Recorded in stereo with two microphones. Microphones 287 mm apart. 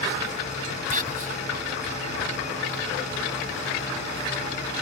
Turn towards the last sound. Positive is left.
turn(degrees=-30)  # may be behind; listen again after turning